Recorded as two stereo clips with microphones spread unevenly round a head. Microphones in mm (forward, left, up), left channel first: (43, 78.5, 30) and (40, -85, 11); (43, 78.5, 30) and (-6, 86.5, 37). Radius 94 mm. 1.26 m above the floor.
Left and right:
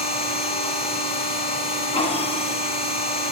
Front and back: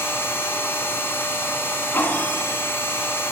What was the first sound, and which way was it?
A machine running, 35° left.